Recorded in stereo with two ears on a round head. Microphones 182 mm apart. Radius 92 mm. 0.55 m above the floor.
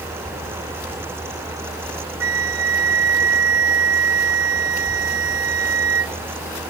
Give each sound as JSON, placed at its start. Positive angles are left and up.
{"t": 2.2, "sound": "a flute", "side_deg": -75}